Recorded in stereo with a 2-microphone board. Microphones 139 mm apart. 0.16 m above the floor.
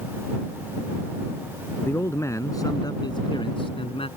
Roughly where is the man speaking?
Centre.